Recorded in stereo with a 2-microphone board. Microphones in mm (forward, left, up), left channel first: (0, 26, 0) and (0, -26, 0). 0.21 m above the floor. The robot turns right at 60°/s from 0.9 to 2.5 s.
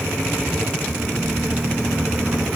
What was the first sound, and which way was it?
Only background noise.